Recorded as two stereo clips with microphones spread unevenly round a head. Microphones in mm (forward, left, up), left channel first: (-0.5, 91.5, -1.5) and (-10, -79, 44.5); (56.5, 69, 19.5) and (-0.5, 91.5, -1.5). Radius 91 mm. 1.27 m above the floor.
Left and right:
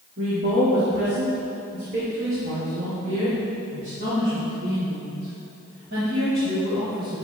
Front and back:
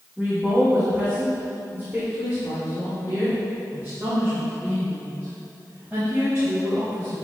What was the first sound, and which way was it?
A woman speaking, 120° right.